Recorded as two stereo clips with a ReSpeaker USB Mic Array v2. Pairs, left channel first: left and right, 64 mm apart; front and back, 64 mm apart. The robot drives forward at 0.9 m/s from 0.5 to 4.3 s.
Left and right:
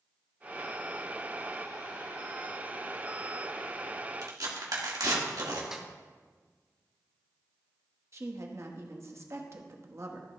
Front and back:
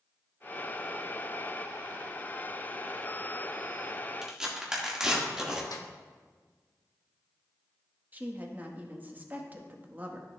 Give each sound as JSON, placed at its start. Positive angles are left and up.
{"t": 4.2, "sound": "tearing paper", "azimuth_deg": -95, "distance_m": 1.6}
{"t": 5.7, "sound": "a snare drum", "azimuth_deg": -10, "distance_m": 1.0}
{"t": 8.1, "sound": "a woman speaking", "azimuth_deg": -120, "distance_m": 1.1}